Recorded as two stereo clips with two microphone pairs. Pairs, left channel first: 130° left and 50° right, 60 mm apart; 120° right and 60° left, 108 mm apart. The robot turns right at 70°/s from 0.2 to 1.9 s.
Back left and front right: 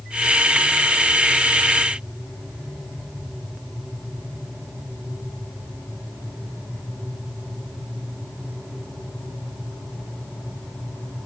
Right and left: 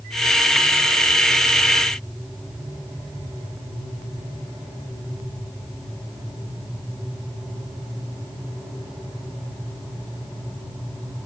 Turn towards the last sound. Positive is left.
No sound to turn to.